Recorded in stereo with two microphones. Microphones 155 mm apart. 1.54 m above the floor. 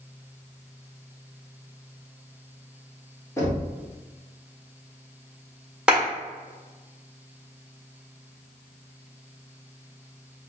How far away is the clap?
About 1.5 m.